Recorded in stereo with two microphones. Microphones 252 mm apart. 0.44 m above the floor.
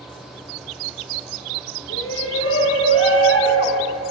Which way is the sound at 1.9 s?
60° left (ahead or behind).